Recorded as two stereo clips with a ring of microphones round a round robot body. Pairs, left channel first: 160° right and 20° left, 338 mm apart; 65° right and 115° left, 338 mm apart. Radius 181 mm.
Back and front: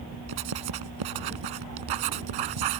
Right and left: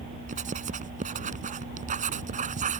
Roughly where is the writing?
Ahead left.